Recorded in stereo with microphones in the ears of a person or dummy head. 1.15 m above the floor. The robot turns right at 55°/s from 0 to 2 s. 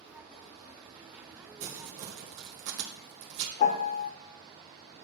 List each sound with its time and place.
1.6 s crumpling: 55° right (ahead or behind), 1.4 m
3.6 s a piano: 45° left (ahead or behind), 0.6 m